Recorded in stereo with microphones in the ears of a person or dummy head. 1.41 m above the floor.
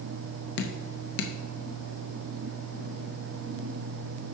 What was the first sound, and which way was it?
Dripping, 65° left (ahead or behind).